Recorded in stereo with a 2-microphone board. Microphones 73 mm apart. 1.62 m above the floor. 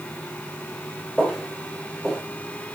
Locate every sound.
1.2 s footsteps: 15° left (ahead or behind), 7.5 m